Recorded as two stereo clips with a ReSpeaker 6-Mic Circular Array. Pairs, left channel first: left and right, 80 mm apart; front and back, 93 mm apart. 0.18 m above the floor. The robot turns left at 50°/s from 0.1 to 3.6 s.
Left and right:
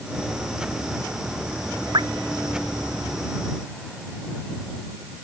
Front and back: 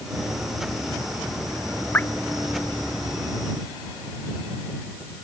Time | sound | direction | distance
1.9 | dripping | 70° right | ?